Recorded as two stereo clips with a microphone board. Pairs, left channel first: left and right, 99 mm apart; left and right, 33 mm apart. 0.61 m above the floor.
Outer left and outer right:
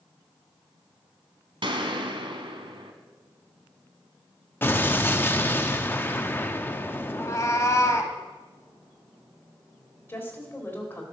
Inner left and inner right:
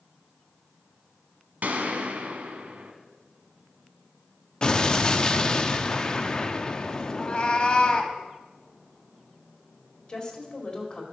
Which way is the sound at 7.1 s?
35° left (ahead or behind).